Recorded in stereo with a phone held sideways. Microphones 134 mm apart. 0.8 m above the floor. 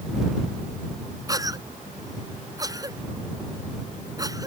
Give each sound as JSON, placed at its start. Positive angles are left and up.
{"t": 1.3, "sound": "a cough", "side_deg": -25}